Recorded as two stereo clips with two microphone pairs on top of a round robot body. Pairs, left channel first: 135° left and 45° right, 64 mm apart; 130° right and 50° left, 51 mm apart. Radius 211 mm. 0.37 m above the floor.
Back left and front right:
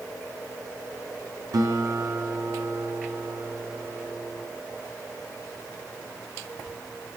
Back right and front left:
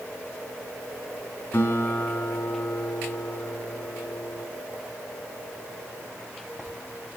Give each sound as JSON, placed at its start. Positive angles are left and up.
{"t": 1.5, "sound": "a guitar", "azimuth_deg": -75, "distance_m": 5.0}